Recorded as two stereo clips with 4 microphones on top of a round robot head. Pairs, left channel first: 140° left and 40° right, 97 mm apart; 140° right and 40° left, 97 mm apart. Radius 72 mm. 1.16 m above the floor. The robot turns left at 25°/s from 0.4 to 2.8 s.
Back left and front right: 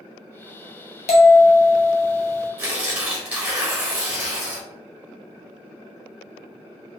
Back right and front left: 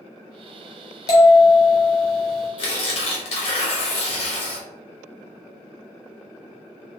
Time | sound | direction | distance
1.1 | a bell | 165° left | 0.7 m
2.6 | tearing paper | 110° right | 1.0 m